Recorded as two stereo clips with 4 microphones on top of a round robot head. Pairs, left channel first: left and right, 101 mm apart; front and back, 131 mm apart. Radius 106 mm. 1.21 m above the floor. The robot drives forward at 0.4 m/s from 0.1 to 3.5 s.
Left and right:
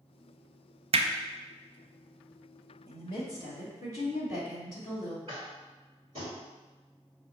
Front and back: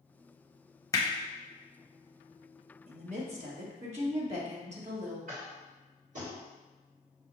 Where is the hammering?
70° right, 0.7 m; by 1.1 s 75° right, 0.7 m.